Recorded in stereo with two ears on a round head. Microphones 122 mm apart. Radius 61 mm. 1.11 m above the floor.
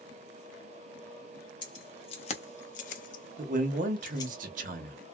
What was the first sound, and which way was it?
Keys jangling, 35° left (ahead or behind).